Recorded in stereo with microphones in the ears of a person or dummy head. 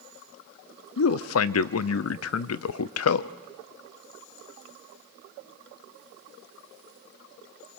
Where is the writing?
No writing in this recording.